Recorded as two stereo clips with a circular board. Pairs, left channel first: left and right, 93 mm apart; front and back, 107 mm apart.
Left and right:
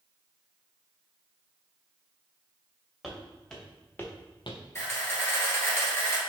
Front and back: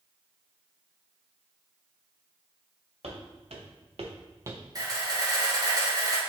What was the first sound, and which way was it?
Footsteps, straight behind.